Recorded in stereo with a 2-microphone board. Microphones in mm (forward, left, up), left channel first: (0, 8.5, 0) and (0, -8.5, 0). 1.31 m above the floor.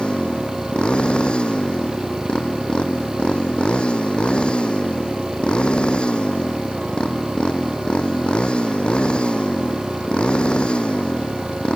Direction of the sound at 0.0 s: 80° left.